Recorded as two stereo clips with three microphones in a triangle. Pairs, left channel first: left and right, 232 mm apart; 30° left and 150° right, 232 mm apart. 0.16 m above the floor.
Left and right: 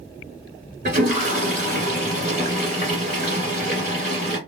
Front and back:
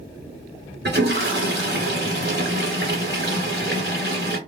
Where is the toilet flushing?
135° right, 2 m.